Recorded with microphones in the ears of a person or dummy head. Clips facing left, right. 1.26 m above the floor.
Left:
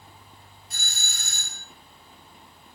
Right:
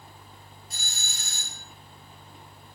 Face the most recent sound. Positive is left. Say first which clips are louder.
# left 3 dB
turn(degrees=45)  # may be behind; listen again after turning